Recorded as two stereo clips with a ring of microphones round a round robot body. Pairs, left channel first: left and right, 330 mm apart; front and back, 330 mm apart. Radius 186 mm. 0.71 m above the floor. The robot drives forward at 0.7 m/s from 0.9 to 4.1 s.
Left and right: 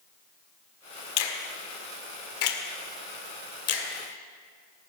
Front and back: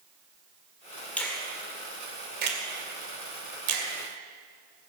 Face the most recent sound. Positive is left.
turn(degrees=140)